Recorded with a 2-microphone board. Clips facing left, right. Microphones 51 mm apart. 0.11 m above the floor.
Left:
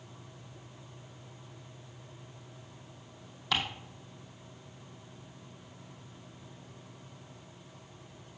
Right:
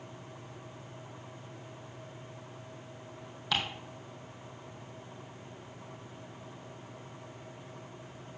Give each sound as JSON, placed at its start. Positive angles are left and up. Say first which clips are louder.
{"t": 3.5, "sound": "ticking", "louder": "left 1 dB", "side_deg": 0, "distance_m": 2.0}